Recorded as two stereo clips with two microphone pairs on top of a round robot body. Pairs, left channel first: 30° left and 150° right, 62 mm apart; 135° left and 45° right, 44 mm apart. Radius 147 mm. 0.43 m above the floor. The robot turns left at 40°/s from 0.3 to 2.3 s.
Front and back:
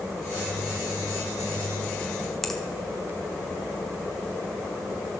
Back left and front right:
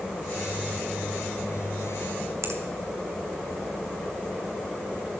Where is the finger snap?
55° right, 1.8 m.